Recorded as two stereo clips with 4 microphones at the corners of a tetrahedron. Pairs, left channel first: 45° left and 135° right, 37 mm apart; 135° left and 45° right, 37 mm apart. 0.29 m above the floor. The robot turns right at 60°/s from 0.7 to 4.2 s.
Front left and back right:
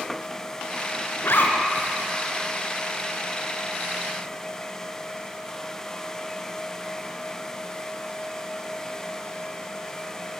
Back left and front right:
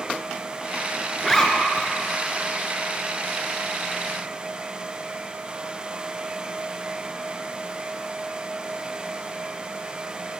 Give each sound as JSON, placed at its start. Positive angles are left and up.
{"t": 1.2, "sound": "a zipper", "azimuth_deg": 50, "distance_m": 1.8}